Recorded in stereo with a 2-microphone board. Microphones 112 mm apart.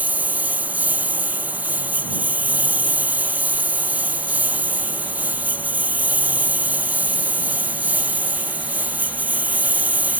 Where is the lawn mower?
15° right (ahead or behind).